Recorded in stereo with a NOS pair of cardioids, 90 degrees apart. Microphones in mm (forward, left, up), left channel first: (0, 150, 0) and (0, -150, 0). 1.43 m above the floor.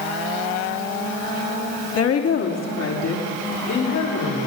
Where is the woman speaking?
50° left, 3 m; by 4.5 s 70° left, 6.5 m.